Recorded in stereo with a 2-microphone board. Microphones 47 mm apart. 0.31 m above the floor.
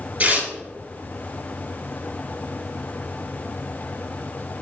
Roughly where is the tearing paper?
Right.